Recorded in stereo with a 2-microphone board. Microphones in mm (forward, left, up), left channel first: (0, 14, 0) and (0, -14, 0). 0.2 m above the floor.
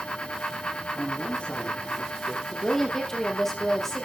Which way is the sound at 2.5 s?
15° left (ahead or behind).